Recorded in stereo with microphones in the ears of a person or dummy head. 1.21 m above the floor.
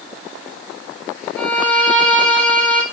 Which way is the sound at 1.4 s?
15° left (ahead or behind).